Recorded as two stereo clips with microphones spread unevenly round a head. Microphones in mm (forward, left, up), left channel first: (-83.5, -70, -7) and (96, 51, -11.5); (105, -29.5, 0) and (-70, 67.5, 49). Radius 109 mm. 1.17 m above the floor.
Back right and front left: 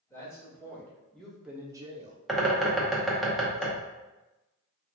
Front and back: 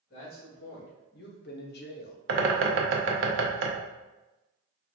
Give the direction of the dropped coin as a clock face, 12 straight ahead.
I don't hear a dropped coin.